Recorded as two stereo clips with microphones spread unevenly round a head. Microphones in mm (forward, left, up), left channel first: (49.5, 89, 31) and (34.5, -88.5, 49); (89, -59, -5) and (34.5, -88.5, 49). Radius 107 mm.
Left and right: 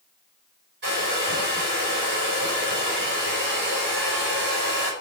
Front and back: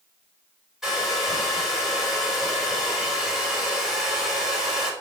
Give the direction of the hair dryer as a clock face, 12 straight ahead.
2 o'clock.